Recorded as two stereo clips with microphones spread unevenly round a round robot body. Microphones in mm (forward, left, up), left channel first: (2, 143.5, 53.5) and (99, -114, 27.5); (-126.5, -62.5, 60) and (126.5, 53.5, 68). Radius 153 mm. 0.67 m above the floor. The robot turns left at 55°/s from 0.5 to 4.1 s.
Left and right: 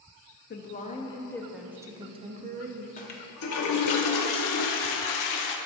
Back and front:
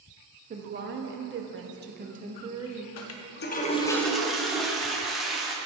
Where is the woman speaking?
70° left, 0.8 m; by 2.9 s 60° right, 0.8 m.